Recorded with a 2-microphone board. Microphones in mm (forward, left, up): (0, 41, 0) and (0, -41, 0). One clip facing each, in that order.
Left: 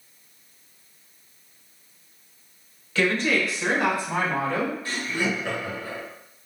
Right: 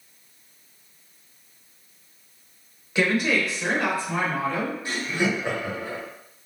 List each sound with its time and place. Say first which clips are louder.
3.0 s a woman speaking: even; 20° right (ahead or behind), 1.2 m; by 4.8 s 40° left (ahead or behind), 1.5 m
4.8 s laughter: right 2 dB; 20° right (ahead or behind), 1.3 m